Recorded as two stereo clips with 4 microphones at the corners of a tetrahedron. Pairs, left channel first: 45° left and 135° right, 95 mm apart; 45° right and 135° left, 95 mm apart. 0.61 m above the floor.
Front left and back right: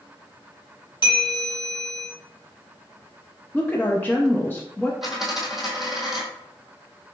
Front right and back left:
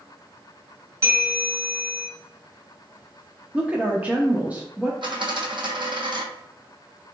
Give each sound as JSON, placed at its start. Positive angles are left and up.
{"t": 1.0, "sound": "a bell", "azimuth_deg": 75, "distance_m": 1.9}
{"t": 3.5, "sound": "a woman speaking", "azimuth_deg": 90, "distance_m": 0.6}
{"t": 5.0, "sound": "a dropped coin", "azimuth_deg": 140, "distance_m": 1.0}